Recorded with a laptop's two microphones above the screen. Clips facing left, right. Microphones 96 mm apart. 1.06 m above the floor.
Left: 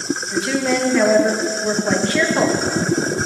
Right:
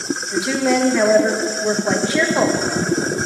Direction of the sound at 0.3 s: 10° right (ahead or behind).